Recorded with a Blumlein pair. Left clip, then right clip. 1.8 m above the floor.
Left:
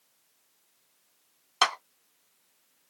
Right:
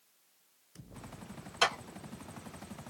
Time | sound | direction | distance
1.6 | a clap | 25° left | 1.1 m